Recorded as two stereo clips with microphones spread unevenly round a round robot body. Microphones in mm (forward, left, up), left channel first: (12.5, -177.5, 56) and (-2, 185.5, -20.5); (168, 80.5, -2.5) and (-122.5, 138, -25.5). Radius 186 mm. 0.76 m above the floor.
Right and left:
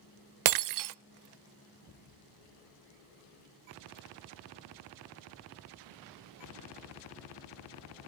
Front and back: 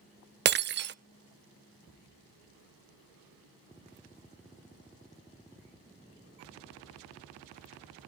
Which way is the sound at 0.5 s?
125° left.